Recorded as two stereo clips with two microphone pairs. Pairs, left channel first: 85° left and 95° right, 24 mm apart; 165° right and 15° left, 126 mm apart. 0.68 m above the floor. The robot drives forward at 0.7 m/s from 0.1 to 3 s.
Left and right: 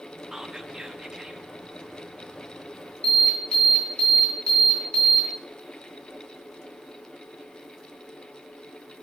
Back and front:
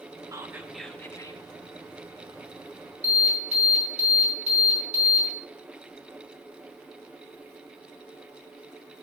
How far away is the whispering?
About 0.7 m.